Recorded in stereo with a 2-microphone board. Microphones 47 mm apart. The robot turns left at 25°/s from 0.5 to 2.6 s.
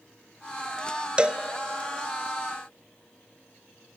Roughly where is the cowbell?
Right.